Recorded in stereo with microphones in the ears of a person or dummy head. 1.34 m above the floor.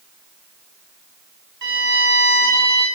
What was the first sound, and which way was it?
A violin, 55° right (ahead or behind).